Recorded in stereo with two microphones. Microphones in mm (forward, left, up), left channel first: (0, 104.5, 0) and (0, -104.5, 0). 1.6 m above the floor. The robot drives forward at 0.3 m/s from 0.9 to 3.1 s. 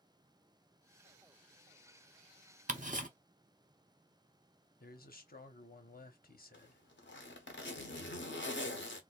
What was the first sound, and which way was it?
Ticking, 35° right (ahead or behind).